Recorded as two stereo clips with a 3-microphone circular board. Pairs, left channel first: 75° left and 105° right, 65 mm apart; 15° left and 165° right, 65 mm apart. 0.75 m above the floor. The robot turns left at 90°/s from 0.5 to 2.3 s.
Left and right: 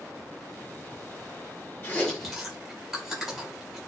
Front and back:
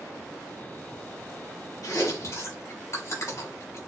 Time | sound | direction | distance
1.8 | chewing | 25° left | 3.5 m